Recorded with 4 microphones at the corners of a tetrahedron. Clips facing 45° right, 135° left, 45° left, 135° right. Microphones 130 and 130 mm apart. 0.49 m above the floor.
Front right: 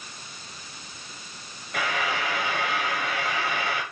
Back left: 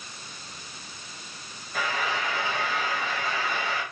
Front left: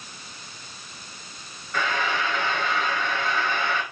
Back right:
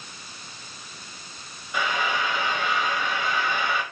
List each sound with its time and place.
1.7 s frying: 60° right, 1.1 m